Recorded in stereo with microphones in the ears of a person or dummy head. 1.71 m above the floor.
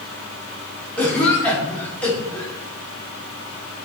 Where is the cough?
10° left (ahead or behind), 1.4 m.